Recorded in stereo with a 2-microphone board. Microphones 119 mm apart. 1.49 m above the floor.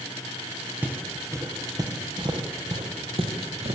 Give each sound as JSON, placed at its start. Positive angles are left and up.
{"t": 0.8, "sound": "footsteps", "side_deg": -15, "distance_m": 2.0}